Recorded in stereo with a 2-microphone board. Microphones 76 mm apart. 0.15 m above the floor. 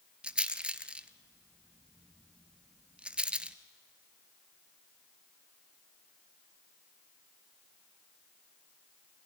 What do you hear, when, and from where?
0.2 s a rattle: 15° right (ahead or behind), 0.9 m